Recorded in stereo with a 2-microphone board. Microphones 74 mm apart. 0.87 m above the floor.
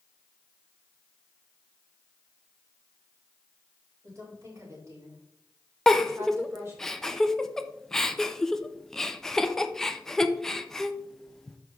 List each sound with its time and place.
4.0 s a woman speaking: 45° right (ahead or behind), 4 m; by 6.9 s 30° right (ahead or behind), 6 m
5.9 s a giggle: 5° left (ahead or behind), 0.6 m